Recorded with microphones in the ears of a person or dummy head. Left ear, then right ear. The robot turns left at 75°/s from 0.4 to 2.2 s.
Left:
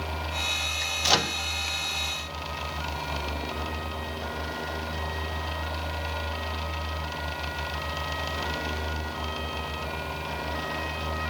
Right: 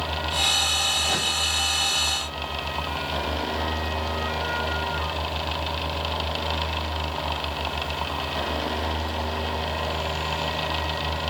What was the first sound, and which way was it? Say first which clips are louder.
A microwave: even; 60° left (ahead or behind).